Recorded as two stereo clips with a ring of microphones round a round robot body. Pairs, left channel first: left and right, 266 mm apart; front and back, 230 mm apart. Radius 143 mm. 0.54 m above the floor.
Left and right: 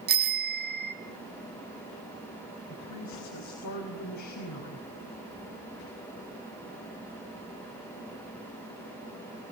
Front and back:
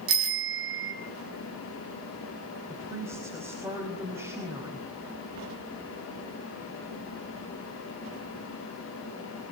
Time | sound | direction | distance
0.1 | a bicycle bell | 145° right | 3 m
2.7 | a woman speaking | 100° left | 4.5 m